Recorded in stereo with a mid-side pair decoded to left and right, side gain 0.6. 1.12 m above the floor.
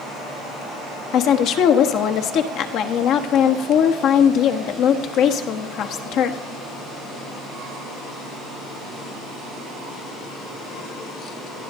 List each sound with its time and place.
1.1 s a woman speaking: 60° left, 1.2 m